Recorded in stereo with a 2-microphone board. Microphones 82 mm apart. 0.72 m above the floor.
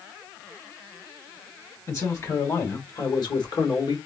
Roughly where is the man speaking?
Left.